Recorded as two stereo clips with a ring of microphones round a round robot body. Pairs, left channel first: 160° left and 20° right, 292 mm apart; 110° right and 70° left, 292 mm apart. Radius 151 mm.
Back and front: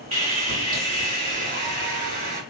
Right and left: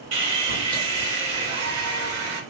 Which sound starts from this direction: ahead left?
Sawing, at 0.1 s.